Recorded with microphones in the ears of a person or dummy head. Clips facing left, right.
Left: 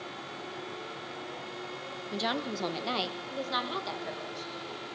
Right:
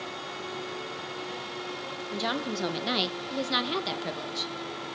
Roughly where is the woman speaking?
Centre.